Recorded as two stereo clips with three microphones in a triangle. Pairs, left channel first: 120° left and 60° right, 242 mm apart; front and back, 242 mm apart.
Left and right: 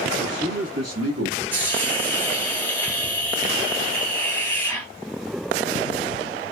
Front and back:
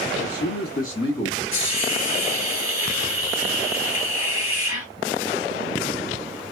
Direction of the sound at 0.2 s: 20° right.